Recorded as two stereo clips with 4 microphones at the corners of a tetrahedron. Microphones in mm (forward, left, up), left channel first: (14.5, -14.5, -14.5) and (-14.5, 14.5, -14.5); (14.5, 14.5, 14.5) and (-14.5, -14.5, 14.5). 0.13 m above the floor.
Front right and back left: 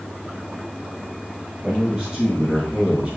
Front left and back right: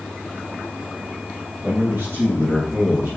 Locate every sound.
1.6 s a man speaking: 155° right, 4 m; by 3.2 s 170° right, 3.5 m